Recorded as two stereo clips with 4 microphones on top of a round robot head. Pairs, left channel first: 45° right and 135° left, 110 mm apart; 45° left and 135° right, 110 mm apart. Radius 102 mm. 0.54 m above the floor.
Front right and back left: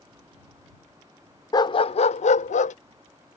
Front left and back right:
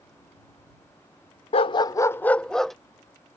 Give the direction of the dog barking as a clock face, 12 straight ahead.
12 o'clock.